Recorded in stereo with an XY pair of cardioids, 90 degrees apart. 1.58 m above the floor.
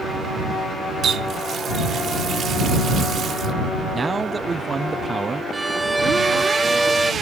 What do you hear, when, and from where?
1.0 s a running tap: 65° right
3.9 s a man speaking: 30° right
5.5 s a violin: 10° right